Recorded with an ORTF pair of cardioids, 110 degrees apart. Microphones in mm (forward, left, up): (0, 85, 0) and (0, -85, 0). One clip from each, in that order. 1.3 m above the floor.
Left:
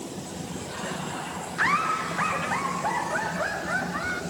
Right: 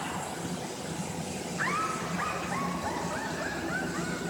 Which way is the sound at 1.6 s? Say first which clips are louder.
Left 7 dB; 40° left.